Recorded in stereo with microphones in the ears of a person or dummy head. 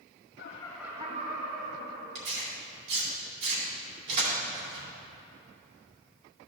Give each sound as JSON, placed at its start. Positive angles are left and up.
{"t": 0.4, "sound": "laughter", "side_deg": 60, "distance_m": 0.6}
{"t": 2.1, "sound": "tearing paper", "side_deg": -70, "distance_m": 2.5}